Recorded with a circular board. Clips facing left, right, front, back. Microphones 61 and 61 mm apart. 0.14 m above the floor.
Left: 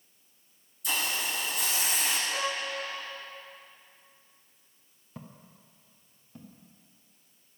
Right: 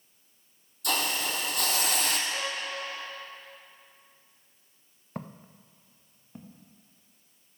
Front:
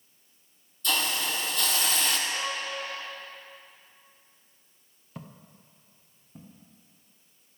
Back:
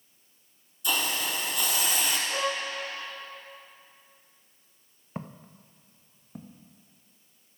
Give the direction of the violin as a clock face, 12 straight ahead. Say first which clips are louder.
Left 2 dB, back 3 dB; 7 o'clock.